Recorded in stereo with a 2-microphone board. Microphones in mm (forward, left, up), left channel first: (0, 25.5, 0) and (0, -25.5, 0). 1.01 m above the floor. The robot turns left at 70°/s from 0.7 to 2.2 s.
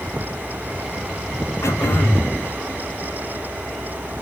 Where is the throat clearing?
80° left, 4.5 m; by 2.3 s 40° left, 4.5 m.